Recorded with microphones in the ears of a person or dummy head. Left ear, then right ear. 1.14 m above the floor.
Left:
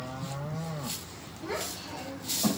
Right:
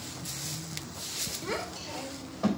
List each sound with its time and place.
1.4 s a child speaking: 80° right, 3 m